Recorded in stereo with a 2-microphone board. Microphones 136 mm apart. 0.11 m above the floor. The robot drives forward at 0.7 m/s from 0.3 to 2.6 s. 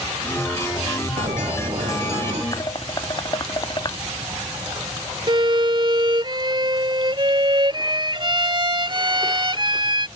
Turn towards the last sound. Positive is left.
turn(degrees=-40)  # may be behind; listen again after turning